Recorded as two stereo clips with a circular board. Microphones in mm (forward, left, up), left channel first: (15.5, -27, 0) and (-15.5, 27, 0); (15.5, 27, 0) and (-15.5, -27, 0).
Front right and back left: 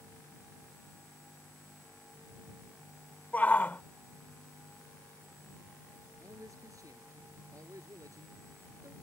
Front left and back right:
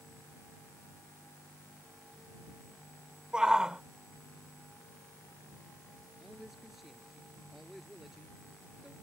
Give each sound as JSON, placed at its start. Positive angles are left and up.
{"t": 3.3, "sound": "a shout", "azimuth_deg": -60}
{"t": 6.2, "sound": "a man speaking", "azimuth_deg": 155}